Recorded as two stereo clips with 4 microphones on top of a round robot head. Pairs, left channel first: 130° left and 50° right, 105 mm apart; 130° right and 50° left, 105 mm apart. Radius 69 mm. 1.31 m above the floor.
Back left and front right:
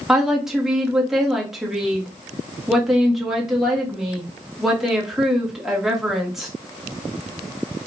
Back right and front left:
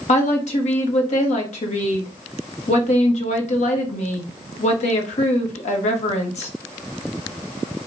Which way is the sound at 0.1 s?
135° right.